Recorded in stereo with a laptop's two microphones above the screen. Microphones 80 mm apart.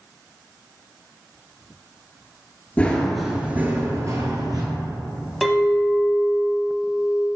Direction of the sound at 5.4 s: Centre (ahead or behind).